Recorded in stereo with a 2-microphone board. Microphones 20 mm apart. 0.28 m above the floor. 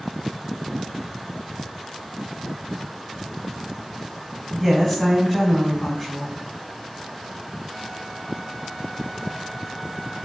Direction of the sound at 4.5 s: Centre (ahead or behind).